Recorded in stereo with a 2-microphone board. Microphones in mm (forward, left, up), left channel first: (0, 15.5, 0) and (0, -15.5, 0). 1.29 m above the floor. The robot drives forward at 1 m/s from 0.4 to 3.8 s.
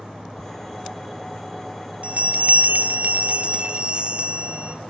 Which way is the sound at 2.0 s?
50° right (ahead or behind).